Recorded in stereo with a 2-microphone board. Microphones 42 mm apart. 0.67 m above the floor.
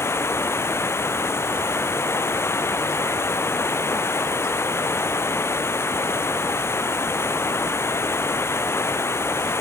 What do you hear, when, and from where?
0.0 s running water: 80° left